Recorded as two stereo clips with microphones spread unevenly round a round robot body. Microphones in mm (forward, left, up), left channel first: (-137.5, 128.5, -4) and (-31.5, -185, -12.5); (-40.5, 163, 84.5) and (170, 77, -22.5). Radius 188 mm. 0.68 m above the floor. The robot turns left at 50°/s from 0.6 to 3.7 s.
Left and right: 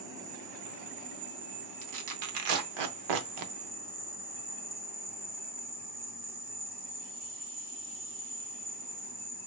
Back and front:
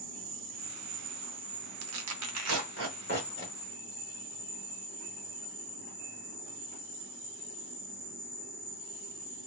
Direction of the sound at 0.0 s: 10° left.